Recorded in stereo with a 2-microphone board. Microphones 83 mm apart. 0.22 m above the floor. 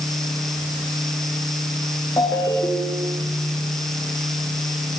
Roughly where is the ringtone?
Left.